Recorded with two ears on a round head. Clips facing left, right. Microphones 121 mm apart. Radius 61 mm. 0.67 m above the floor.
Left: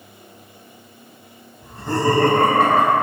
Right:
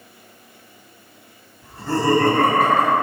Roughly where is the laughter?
Centre.